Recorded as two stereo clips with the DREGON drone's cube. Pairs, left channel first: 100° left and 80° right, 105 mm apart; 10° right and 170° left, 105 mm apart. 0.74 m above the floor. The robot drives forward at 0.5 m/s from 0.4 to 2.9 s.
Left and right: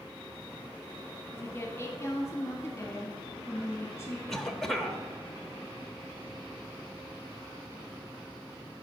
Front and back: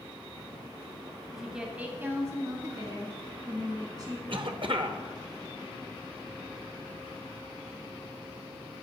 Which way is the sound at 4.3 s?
175° right.